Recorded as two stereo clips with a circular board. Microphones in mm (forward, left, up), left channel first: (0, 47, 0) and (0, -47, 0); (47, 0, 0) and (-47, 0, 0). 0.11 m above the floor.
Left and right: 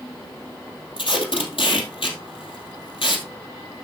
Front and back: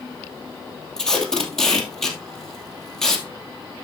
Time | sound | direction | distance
1.0 | tape being pulled | 85° left | 2.0 m